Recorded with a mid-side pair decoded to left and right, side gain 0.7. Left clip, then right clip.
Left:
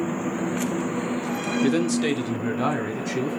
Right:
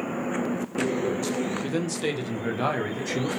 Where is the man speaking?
30° left, 0.5 m; by 3.3 s 15° right, 1.4 m.